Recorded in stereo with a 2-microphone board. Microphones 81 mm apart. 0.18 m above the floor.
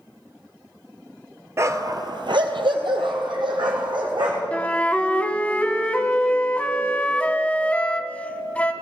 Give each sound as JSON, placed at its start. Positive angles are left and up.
{"t": 1.6, "sound": "a dog barking", "side_deg": -35, "distance_m": 0.8}
{"t": 4.5, "sound": "a flute", "side_deg": 15, "distance_m": 0.7}